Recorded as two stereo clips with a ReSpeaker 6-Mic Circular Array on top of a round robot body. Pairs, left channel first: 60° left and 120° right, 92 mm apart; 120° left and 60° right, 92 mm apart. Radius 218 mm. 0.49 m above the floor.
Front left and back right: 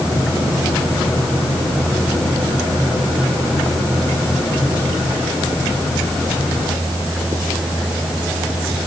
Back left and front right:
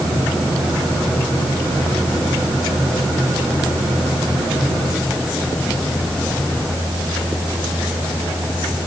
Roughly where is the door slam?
I don't hear a door slam.